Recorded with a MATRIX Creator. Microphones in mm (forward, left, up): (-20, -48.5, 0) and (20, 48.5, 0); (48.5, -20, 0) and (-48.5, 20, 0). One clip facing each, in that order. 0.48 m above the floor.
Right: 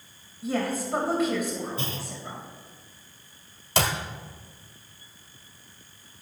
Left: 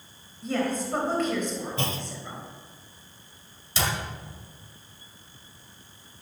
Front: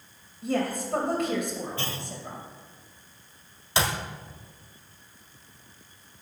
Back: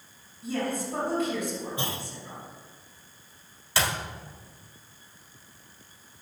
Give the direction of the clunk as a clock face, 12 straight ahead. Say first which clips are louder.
Left 3 dB, back 1 dB; 9 o'clock.